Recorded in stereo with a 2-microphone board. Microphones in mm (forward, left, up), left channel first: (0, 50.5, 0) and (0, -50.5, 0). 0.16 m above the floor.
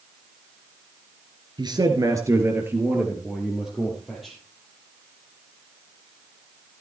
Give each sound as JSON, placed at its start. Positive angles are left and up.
{"t": 1.6, "sound": "a man speaking", "side_deg": -45, "distance_m": 2.5}